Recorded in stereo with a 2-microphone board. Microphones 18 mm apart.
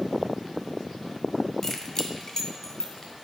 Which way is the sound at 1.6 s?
15° left (ahead or behind).